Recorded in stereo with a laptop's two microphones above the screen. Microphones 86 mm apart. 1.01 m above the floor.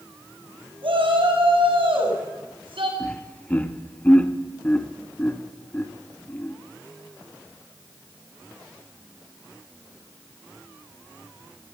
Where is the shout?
80° right, 6.5 m.